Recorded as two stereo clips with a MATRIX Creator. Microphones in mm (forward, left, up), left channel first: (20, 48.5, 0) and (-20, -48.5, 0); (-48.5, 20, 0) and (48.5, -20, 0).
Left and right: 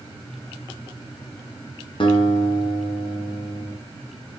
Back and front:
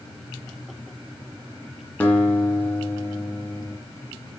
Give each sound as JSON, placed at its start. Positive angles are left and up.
{"t": 2.0, "sound": "a guitar", "azimuth_deg": 85, "distance_m": 1.7}